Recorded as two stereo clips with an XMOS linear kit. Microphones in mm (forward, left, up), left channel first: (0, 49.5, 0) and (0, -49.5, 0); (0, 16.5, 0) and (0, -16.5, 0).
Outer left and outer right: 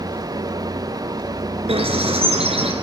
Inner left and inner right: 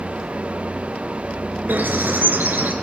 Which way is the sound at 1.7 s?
75° right (ahead or behind).